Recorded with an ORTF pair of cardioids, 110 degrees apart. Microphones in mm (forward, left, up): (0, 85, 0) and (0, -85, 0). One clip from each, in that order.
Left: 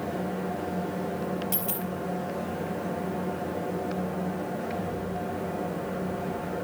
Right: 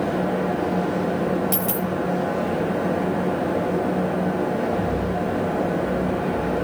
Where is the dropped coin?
35° right, 4.5 m.